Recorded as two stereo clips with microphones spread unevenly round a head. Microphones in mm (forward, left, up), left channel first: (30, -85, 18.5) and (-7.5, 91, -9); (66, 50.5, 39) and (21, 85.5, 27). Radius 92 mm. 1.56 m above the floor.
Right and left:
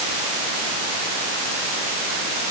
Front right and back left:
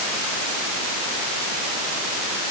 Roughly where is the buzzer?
I don't hear a buzzer.